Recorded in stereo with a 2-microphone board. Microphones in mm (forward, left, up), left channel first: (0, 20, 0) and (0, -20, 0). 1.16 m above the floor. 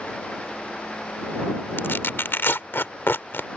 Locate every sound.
1.8 s tearing paper: 65° left (ahead or behind)